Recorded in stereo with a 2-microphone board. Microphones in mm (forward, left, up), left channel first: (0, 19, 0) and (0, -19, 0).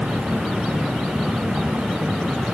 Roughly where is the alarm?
I don't hear an alarm.